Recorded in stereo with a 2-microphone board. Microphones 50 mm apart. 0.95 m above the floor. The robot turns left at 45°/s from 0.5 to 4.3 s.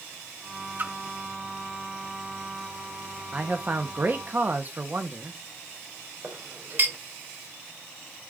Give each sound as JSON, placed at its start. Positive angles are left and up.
{"t": 0.8, "sound": "a splash", "side_deg": -40, "distance_m": 1.0}
{"t": 3.3, "sound": "a man speaking", "azimuth_deg": -40, "distance_m": 0.8}
{"t": 6.2, "sound": "a clink", "side_deg": -55, "distance_m": 3.0}